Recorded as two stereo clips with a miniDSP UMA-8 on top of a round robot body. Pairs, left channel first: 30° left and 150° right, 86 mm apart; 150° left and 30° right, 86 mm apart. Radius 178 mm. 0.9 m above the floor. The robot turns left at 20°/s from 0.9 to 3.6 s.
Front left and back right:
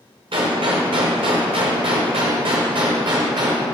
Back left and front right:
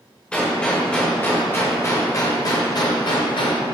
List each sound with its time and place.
0.3 s a gunshot: 130° right, 0.9 m; by 3.6 s 175° left, 0.9 m